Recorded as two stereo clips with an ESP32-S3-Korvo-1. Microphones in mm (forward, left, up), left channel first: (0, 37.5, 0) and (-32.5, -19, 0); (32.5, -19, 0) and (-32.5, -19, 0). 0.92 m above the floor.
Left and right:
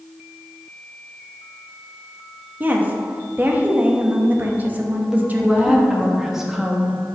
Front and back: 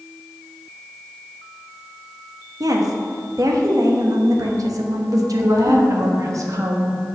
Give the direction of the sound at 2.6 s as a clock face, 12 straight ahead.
6 o'clock.